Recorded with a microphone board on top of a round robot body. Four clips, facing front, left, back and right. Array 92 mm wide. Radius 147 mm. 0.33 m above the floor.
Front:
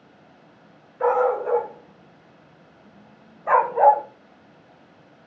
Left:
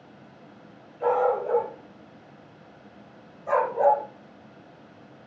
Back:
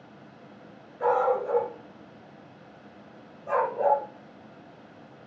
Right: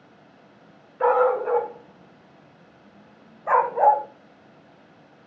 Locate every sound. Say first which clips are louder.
1.0 s a dog barking: right 4 dB, front 4 dB; 65° right, 2.5 m; by 4.0 s 25° right, 1.6 m